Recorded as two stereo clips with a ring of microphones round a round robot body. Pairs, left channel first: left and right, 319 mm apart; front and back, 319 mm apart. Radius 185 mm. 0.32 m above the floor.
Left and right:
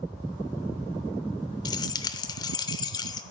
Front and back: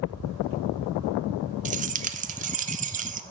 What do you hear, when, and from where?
1.6 s keys jangling: 150° left, 0.6 m